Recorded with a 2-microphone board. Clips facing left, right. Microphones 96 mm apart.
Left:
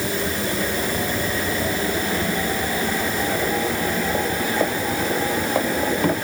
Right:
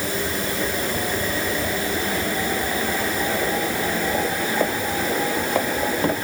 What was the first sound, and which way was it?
Only background noise.